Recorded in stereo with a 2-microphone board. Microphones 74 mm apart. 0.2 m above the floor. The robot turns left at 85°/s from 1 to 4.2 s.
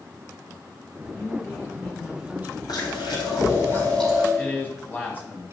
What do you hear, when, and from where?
1.1 s a woman speaking: 60° left, 1.6 m; by 2.6 s 65° right, 1.6 m
2.7 s chewing: 120° left, 4 m; by 4.3 s 10° right, 4 m
4.4 s a man speaking: 25° left (ahead or behind), 1.6 m